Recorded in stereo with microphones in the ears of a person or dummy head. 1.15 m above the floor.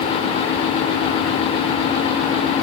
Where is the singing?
I don't hear singing.